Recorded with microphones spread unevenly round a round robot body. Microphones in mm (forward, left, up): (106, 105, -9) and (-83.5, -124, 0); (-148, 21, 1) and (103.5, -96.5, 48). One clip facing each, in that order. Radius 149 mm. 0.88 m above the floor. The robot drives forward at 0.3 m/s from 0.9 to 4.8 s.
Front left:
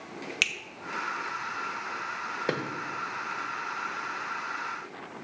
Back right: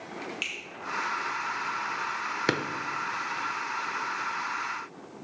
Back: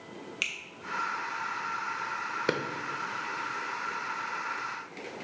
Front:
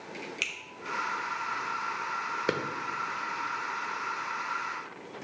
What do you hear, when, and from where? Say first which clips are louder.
0.4 s a finger snap: front left 1 dB, front 2 dB; 70° left, 0.8 m
2.5 s a drawer: back right 2 dB, even; 100° right, 0.6 m; by 2.6 s 105° right, 0.6 m